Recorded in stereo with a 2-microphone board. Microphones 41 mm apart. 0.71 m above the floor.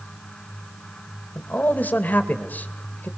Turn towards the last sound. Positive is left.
turn(degrees=45)  # may be behind; listen again after turning